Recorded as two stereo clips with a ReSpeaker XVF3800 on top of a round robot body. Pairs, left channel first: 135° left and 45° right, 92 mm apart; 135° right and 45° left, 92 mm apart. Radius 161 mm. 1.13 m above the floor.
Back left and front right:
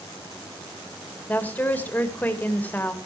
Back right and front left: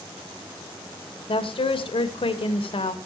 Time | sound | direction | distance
1.3 | a woman speaking | 155° right | 2 m